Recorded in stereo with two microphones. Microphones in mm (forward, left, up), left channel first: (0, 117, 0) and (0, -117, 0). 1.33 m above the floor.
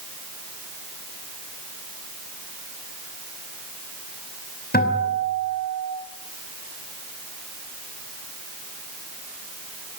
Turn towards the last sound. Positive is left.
turn(degrees=40)  # may be behind; listen again after turning